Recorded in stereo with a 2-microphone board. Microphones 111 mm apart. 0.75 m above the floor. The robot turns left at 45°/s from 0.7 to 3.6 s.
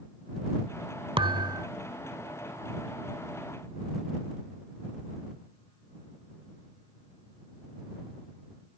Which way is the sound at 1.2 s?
55° right (ahead or behind).